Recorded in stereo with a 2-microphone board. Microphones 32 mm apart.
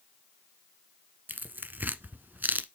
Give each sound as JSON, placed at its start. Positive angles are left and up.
{"t": 1.3, "sound": "tearing paper", "side_deg": -70, "distance_m": 1.1}